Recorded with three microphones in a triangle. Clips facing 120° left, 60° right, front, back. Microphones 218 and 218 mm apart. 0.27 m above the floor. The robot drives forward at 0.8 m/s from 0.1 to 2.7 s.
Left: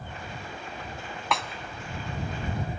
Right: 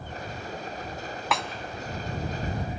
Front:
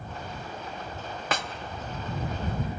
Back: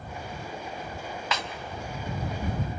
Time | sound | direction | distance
1.3 | a snare drum | 30° left | 0.7 m